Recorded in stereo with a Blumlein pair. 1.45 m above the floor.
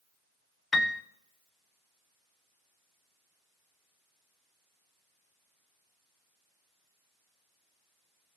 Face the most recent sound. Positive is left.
turn(degrees=15)